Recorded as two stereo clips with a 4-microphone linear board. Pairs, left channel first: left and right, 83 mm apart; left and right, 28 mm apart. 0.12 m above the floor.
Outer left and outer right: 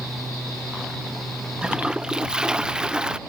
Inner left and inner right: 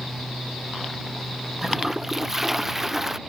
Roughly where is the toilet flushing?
Centre.